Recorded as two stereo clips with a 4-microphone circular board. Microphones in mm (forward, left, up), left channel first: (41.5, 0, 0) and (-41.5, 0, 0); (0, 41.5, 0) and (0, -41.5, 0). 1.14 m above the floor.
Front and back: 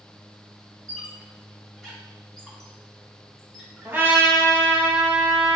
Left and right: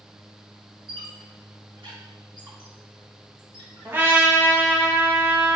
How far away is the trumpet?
About 1.1 m.